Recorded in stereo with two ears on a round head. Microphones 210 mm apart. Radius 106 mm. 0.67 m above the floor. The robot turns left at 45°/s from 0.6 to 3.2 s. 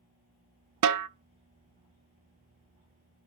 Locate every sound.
0.8 s a snare drum: 80° right, 0.5 m